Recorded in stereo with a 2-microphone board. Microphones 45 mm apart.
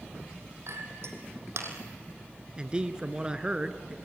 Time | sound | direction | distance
0.7 | a clink | 70° right (ahead or behind) | 3 m
2.6 | a man speaking | 20° right (ahead or behind) | 1.2 m